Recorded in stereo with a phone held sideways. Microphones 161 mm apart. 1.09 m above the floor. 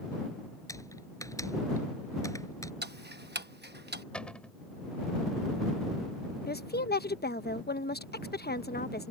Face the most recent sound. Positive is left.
turn(degrees=70)  # may be behind; listen again after turning